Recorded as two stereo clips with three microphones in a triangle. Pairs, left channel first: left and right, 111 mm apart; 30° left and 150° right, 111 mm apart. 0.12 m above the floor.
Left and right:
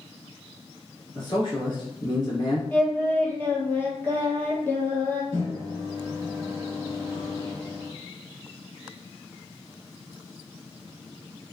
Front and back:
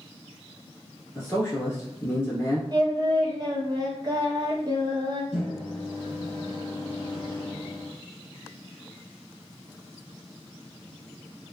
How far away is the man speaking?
About 1.9 m.